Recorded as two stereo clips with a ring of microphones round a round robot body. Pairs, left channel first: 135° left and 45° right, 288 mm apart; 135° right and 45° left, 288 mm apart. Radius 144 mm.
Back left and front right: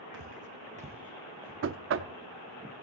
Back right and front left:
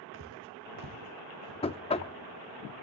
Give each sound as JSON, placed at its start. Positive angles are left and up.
{"t": 0.1, "sound": "footsteps", "azimuth_deg": -5, "distance_m": 1.8}
{"t": 1.6, "sound": "knocking", "azimuth_deg": -70, "distance_m": 0.6}